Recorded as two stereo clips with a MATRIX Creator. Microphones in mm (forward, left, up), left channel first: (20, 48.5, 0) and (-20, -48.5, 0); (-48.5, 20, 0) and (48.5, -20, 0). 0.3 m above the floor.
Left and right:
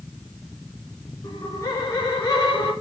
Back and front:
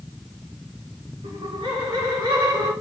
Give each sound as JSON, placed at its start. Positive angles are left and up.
{"t": 1.2, "sound": "laughter", "azimuth_deg": 25, "distance_m": 4.0}